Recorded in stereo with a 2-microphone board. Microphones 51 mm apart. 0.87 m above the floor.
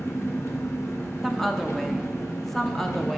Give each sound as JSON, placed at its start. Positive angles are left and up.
{"t": 0.0, "sound": "an engine running", "side_deg": 65, "distance_m": 1.0}
{"t": 1.2, "sound": "a woman speaking", "side_deg": 5, "distance_m": 0.5}